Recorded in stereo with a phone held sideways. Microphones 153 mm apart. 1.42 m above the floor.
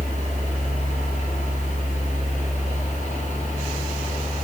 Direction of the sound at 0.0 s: 50° left (ahead or behind).